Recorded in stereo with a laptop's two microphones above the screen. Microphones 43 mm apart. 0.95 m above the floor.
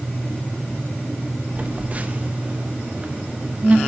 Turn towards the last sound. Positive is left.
turn(degrees=-35)  # may be behind; listen again after turning